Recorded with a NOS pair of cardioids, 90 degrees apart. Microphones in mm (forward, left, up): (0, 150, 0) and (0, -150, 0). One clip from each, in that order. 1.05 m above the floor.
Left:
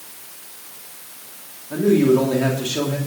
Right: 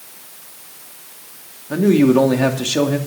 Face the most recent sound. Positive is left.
turn(degrees=-50)